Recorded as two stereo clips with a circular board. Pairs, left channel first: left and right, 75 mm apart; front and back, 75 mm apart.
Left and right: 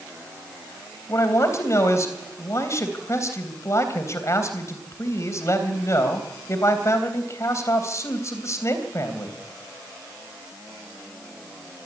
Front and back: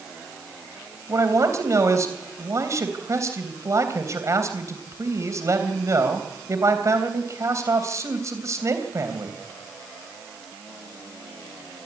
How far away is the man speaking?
About 3.5 m.